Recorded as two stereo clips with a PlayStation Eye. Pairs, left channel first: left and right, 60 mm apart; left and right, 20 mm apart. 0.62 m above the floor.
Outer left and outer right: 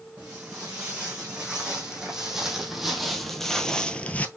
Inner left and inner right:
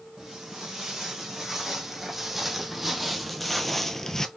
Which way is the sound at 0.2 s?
15° right (ahead or behind).